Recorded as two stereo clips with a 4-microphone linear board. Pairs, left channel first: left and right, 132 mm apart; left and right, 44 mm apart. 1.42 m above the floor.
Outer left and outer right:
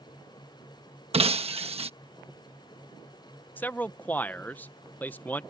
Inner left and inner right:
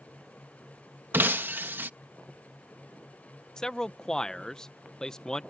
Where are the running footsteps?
I don't hear running footsteps.